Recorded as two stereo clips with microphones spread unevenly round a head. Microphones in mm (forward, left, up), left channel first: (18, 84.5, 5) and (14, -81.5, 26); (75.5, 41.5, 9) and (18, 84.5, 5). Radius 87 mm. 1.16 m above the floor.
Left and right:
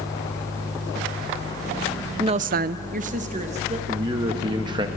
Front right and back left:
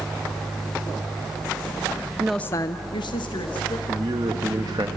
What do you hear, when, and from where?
2.2 s a woman speaking: 160° right, 0.6 m; by 3.8 s 40° right, 2 m
3.9 s a man speaking: 160° right, 1.6 m